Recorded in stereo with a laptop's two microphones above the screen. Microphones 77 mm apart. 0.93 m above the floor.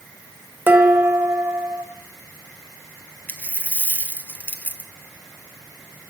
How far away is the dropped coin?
About 1.2 m.